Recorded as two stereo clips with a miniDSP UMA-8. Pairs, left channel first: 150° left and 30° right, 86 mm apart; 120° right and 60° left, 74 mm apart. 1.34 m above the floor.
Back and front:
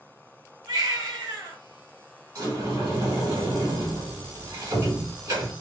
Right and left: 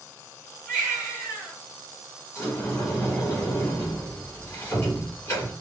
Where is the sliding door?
65° right, 2.5 m.